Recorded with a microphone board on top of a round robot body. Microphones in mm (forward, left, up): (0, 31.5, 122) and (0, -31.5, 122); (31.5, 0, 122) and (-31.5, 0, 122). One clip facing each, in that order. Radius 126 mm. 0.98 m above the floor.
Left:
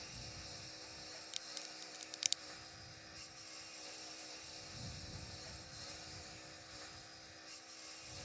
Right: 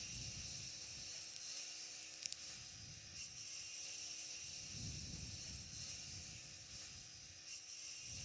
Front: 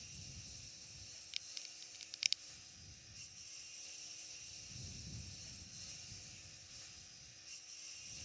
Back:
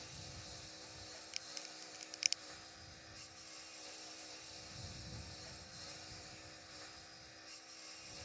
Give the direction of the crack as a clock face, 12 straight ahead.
8 o'clock.